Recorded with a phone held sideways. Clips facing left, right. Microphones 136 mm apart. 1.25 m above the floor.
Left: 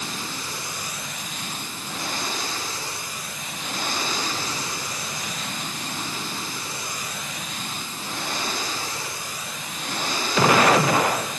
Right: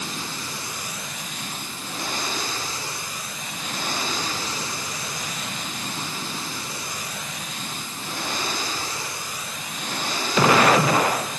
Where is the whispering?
No whispering in this recording.